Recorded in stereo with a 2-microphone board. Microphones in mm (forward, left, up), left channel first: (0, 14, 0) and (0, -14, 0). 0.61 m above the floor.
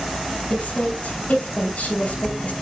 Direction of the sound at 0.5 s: 60° left (ahead or behind).